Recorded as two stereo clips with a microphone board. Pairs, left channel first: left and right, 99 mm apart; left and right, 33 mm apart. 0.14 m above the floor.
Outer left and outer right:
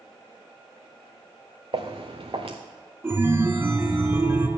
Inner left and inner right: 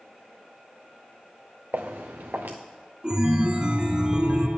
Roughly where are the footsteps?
Right.